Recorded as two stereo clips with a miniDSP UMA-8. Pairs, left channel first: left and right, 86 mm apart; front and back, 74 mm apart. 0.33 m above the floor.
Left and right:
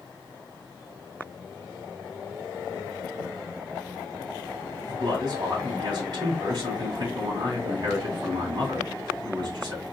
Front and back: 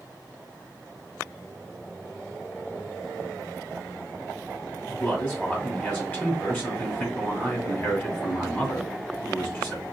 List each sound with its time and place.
4.9 s a man speaking: 65° right, 2.0 m